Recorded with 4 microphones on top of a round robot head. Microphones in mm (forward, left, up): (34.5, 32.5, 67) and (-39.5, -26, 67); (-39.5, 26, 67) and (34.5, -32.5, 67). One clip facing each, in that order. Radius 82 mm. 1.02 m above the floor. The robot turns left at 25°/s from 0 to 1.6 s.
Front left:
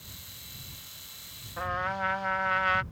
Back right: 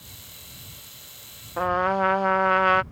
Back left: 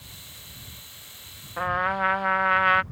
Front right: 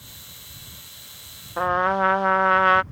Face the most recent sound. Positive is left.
turn(degrees=-100)